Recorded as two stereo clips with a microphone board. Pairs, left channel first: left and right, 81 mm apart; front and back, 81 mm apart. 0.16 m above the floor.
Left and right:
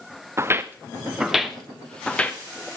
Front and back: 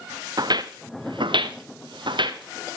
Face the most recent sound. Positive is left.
turn(degrees=155)